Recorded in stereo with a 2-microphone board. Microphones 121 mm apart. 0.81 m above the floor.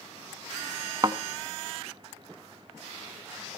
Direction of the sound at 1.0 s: 35° right (ahead or behind).